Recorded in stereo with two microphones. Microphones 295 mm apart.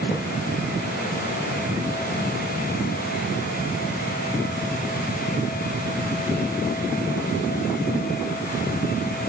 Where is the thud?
15° left (ahead or behind), 1.9 m.